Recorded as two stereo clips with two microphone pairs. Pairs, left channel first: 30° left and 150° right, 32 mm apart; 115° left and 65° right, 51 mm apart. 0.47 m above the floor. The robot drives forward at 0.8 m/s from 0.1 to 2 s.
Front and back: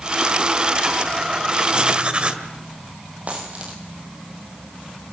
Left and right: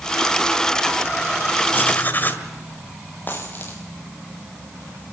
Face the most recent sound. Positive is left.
turn(degrees=165)